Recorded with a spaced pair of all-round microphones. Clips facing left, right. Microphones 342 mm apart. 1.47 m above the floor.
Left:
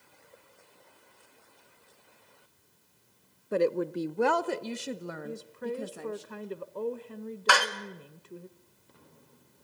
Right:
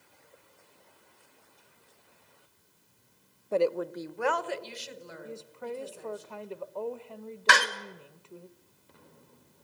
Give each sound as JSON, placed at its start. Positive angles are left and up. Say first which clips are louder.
{"t": 3.5, "sound": "a woman speaking", "louder": "left 1 dB", "side_deg": 20, "distance_m": 0.7}
{"t": 5.2, "sound": "a woman speaking", "louder": "left 2 dB", "side_deg": 25, "distance_m": 1.1}
{"t": 7.5, "sound": "a door slam", "louder": "even", "side_deg": -30, "distance_m": 1.7}